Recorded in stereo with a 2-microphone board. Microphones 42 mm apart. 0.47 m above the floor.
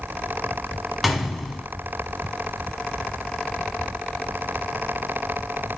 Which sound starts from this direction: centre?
A gunshot, at 1.0 s.